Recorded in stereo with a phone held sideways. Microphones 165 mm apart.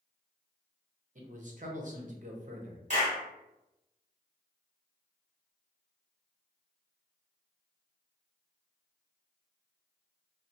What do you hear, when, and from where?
1.1 s a man speaking: 50° right (ahead or behind), 0.6 m
2.9 s a clap: 45° right (ahead or behind), 1.2 m